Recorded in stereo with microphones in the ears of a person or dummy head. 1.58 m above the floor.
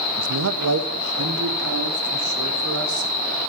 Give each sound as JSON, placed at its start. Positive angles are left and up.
{"t": 0.2, "sound": "a man speaking", "side_deg": -75, "distance_m": 1.2}